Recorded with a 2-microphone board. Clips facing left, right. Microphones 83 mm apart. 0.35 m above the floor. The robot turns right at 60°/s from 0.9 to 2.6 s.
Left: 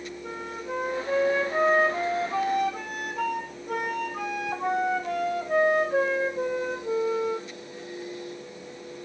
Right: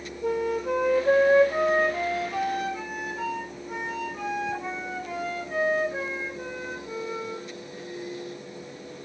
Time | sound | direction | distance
0.2 | a flute | 50° right | 2.5 m